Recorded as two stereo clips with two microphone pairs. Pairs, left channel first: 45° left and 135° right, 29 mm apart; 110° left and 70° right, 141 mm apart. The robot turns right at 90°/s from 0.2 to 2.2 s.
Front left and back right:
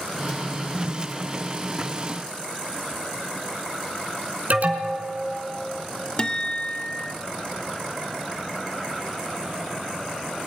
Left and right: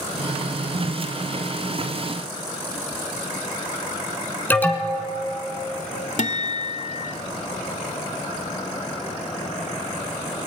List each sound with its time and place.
4.5 s an alarm: 175° right, 2.5 m
6.2 s a guitar: 95° left, 0.9 m